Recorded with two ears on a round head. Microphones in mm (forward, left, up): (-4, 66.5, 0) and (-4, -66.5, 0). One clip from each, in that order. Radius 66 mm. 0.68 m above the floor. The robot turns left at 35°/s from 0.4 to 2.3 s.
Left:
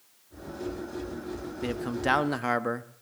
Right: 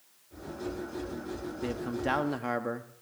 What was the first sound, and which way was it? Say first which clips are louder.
A man speaking: left 4 dB; 25° left (ahead or behind).